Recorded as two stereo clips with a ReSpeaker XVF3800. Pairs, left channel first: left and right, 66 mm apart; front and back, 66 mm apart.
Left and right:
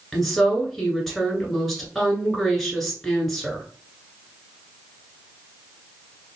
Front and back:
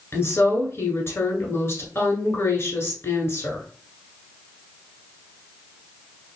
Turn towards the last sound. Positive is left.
turn(degrees=5)